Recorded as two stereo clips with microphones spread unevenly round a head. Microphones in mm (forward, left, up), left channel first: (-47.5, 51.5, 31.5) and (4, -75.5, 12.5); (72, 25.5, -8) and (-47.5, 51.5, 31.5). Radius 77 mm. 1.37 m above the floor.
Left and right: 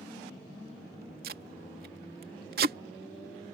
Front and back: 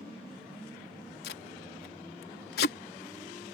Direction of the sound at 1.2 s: 30° right.